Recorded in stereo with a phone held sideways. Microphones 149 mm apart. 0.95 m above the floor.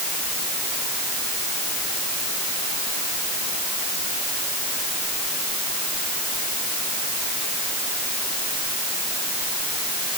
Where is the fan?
No fan in this recording.